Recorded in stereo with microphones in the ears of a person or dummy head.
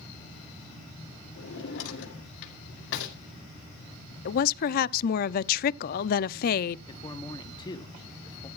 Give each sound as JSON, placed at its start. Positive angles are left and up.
{"t": 1.4, "sound": "a drawer", "side_deg": 65, "distance_m": 2.0}
{"t": 4.2, "sound": "a woman speaking", "side_deg": 50, "distance_m": 0.5}
{"t": 6.9, "sound": "a man speaking", "side_deg": 20, "distance_m": 1.1}